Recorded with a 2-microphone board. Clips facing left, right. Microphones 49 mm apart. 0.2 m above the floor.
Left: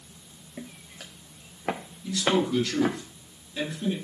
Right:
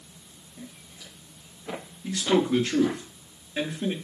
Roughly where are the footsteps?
Left.